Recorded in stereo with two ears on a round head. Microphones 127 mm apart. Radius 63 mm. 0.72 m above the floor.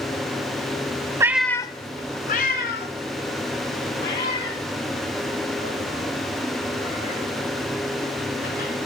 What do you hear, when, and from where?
1.2 s a cat meowing: 20° right (ahead or behind), 0.6 m; by 8.7 s 85° left, 7.5 m